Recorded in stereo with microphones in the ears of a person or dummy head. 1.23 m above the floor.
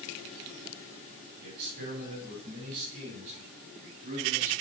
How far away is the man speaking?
About 6.5 m.